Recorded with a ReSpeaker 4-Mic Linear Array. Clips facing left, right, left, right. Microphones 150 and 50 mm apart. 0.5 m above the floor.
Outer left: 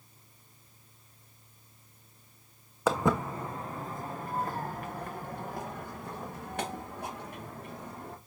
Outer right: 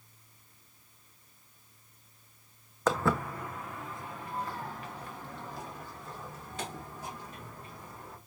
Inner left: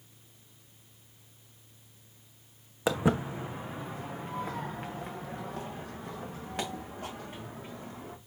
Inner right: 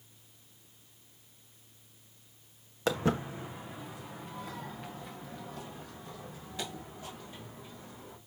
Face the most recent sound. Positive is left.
turn(degrees=65)  # may be behind; listen again after turning